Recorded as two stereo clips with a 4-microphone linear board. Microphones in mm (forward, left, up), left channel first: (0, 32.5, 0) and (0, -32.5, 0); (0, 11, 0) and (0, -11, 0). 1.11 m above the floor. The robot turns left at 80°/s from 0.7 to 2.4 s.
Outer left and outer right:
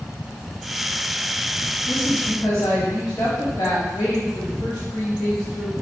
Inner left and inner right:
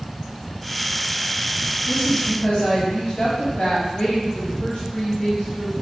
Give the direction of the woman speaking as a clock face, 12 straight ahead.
7 o'clock.